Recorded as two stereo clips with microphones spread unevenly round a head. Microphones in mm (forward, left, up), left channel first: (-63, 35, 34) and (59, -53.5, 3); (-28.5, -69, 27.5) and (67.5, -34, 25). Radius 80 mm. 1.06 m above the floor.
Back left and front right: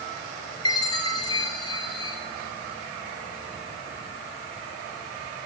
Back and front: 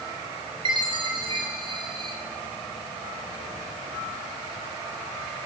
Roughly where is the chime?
Left.